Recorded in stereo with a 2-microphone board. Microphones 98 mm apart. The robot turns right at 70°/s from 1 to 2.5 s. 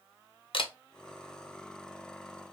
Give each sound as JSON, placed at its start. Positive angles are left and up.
{"t": 0.5, "sound": "a camera shutter", "side_deg": 60, "distance_m": 0.7}